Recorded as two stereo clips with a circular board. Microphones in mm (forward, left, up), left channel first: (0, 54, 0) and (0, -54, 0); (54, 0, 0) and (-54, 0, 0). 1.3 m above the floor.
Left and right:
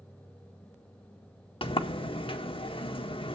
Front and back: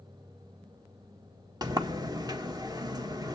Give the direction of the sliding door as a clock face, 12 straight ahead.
8 o'clock.